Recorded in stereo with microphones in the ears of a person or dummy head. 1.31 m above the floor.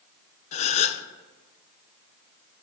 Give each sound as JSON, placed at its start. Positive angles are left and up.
{"t": 0.5, "sound": "a gasp", "side_deg": 40, "distance_m": 0.8}